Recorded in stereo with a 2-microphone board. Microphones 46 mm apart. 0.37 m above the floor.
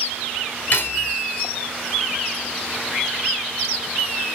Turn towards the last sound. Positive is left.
turn(degrees=45)  # may be behind; listen again after turning